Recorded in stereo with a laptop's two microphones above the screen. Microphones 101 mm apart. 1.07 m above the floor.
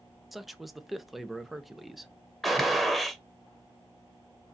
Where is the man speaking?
Centre (ahead or behind), 0.7 m.